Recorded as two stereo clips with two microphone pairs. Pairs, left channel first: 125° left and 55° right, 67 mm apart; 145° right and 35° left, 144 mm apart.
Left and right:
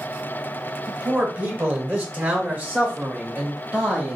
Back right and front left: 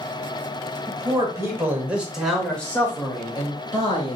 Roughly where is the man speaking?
Ahead.